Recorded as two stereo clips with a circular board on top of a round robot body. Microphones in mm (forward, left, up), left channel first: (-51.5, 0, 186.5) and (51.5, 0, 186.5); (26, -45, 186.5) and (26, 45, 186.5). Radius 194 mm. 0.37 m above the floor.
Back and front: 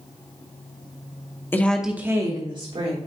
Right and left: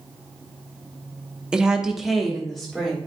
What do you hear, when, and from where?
1.5 s a woman speaking: 160° left, 1.3 m; by 3.0 s 5° right, 2 m